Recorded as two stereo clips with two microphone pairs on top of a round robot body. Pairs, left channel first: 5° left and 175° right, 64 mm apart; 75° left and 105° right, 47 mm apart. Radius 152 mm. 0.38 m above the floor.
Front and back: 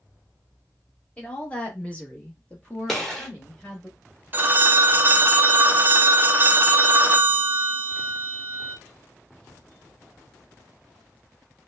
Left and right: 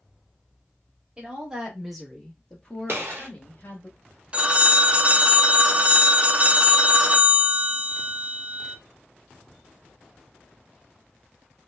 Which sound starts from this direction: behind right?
A phone ringing, at 4.3 s.